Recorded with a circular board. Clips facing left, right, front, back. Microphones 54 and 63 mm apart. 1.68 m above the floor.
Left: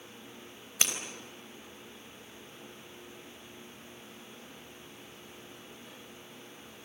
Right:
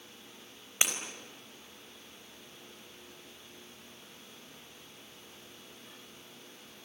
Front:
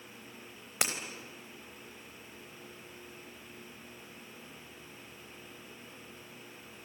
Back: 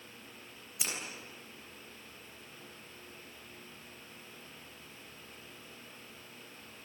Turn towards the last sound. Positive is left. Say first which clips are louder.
# right 1 dB, front 6 dB
turn(degrees=-15)